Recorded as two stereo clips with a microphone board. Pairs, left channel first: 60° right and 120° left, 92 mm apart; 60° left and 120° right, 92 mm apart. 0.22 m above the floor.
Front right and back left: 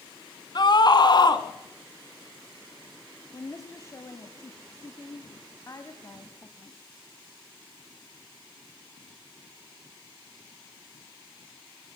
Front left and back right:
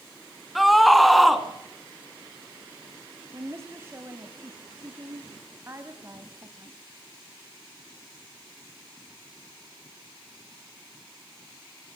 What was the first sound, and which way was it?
A scream, 30° right.